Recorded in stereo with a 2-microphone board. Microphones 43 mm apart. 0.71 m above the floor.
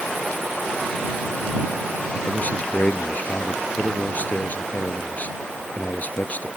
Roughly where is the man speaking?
Left.